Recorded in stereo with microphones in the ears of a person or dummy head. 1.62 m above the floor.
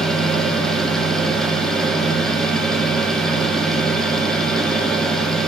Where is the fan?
5° left (ahead or behind), 1.2 m.